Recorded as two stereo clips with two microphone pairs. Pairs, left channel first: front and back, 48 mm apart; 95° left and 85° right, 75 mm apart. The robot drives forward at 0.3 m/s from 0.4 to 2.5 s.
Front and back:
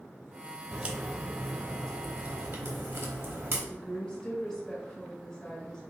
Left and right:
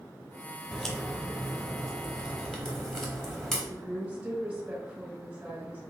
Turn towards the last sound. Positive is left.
turn(degrees=-50)